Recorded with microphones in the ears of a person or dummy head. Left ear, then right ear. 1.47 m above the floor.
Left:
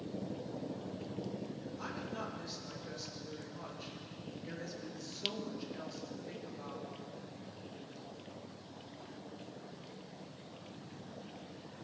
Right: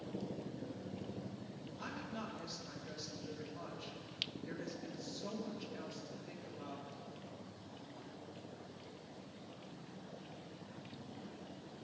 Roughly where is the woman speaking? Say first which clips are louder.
Left 2 dB; centre.